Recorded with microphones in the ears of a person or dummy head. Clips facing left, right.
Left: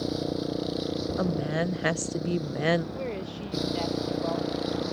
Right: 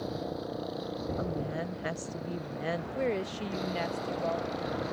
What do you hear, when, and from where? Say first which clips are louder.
0.0 s a motorcycle: left 6 dB; 40° left (ahead or behind)
1.2 s a woman speaking: left 8 dB; 65° left (ahead or behind)
3.0 s a woman speaking: right 2 dB; 25° right (ahead or behind)